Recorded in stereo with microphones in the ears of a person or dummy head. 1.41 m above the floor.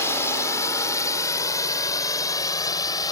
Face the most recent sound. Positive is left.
turn(degrees=20)  # may be behind; listen again after turning